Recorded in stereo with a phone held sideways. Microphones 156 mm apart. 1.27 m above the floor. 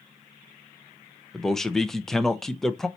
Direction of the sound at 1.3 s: 5° left (ahead or behind).